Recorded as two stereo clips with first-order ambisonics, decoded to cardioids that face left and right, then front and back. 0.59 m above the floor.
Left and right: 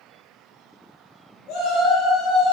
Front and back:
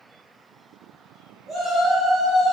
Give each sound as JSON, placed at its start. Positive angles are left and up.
{"t": 1.5, "sound": "a shout", "azimuth_deg": 100, "distance_m": 2.0}